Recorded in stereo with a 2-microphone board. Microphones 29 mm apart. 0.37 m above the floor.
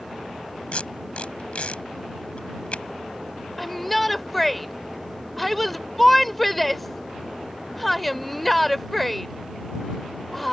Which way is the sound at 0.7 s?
55° left (ahead or behind).